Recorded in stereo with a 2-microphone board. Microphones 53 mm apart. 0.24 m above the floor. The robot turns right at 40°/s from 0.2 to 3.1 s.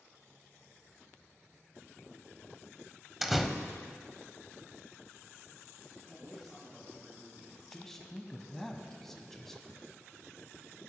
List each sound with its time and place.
3.2 s a door slam: 5° right (ahead or behind), 0.7 m
6.1 s a man speaking: 10° right (ahead or behind), 3.5 m
7.7 s a man speaking: 5° left (ahead or behind), 1.3 m